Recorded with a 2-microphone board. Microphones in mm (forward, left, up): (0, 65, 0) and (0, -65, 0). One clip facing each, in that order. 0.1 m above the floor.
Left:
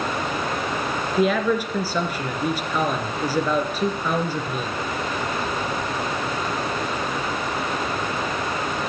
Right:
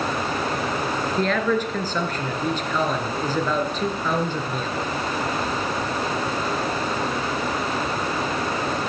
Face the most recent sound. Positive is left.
turn(degrees=10)  # may be behind; listen again after turning